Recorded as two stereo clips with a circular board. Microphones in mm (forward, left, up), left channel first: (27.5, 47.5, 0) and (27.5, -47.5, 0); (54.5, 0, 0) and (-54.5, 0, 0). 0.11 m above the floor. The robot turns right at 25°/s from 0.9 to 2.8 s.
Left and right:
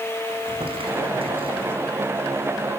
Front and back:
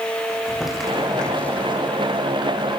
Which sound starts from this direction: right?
Crumpling, at 0.3 s.